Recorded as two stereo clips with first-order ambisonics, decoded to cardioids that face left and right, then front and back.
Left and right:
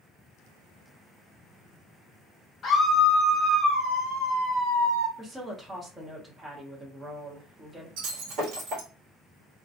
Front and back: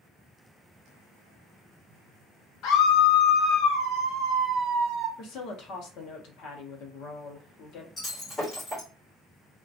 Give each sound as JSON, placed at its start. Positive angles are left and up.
{"t": 2.6, "sound": "a scream", "azimuth_deg": 35, "distance_m": 0.7}
{"t": 5.2, "sound": "a woman speaking", "azimuth_deg": -15, "distance_m": 0.7}
{"t": 8.0, "sound": "breaking glass", "azimuth_deg": -75, "distance_m": 1.3}